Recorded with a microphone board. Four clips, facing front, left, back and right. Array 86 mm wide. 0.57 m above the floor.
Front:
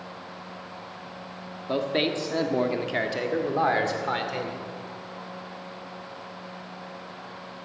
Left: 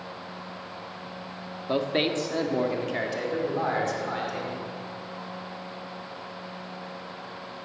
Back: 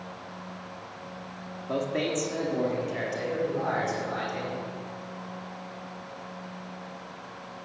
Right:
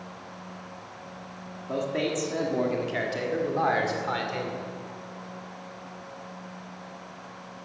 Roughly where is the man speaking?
Ahead left.